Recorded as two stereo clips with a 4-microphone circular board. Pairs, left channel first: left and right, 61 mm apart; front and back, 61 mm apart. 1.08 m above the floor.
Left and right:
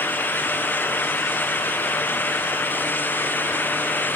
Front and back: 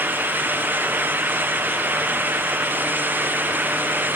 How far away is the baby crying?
I don't hear a baby crying.